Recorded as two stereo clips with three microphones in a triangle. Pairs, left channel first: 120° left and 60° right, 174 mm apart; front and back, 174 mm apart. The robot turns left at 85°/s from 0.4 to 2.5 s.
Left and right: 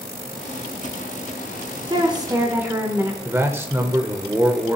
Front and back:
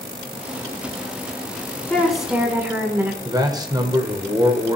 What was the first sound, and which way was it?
A woman speaking, 70° right.